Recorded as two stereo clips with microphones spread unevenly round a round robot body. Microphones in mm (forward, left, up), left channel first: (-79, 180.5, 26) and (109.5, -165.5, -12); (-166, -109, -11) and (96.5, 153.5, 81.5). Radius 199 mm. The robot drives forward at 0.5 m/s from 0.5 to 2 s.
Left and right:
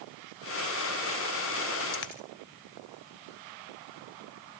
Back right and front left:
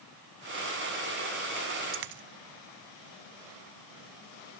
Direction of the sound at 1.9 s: 65° left.